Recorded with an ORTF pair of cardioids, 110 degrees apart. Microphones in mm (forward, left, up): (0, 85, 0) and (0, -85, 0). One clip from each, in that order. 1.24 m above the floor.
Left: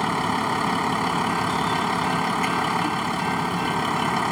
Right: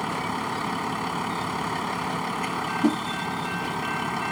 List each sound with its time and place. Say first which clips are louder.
0.0 s a vehicle: left 5 dB; 35° left
2.8 s a whoosh: even; 45° right